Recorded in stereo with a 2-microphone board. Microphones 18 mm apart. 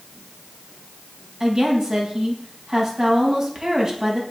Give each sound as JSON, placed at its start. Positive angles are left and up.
{"t": 1.4, "sound": "a woman speaking", "side_deg": -30, "distance_m": 3.5}